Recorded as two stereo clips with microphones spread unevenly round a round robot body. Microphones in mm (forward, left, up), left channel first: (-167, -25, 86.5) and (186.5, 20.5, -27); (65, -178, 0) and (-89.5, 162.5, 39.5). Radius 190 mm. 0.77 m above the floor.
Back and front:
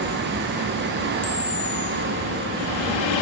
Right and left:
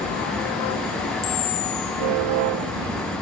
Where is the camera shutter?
105° right, 4 m.